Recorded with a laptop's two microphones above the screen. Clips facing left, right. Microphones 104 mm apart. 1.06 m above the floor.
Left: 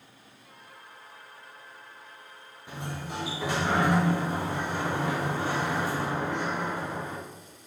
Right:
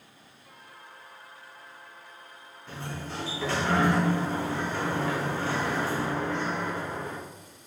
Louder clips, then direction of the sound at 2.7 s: Left 1 dB; 15° left (ahead or behind).